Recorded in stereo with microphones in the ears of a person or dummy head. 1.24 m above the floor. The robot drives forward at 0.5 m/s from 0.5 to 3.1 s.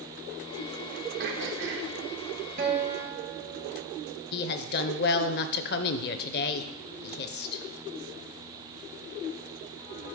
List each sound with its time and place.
1.2 s throat clearing: 55° right (ahead or behind), 1.3 m; by 1.9 s 60° right (ahead or behind), 1.3 m
2.6 s a guitar: 40° right (ahead or behind), 1.6 m; by 4.1 s 35° right (ahead or behind), 1.8 m
4.3 s a woman speaking: 45° left (ahead or behind), 0.6 m